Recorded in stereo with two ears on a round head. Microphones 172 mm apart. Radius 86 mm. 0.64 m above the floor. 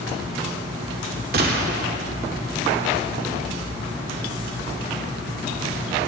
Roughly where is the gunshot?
Right.